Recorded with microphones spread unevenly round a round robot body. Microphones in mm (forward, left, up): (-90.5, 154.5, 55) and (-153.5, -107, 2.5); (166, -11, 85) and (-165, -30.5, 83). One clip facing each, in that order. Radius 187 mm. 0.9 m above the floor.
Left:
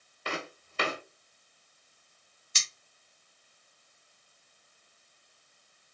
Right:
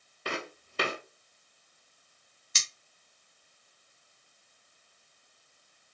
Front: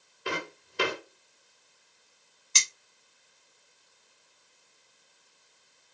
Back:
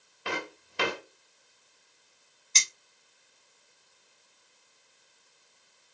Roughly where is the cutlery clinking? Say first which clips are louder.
Right 2 dB, front 1 dB; right.